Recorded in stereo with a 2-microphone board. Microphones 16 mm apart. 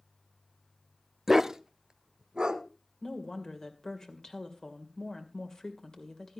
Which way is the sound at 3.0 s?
40° left (ahead or behind).